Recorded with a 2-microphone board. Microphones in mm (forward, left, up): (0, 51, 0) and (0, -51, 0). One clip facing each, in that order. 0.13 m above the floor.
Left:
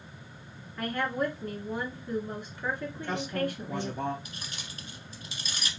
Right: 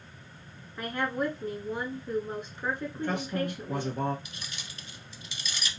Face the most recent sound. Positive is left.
turn(degrees=40)  # may be behind; listen again after turning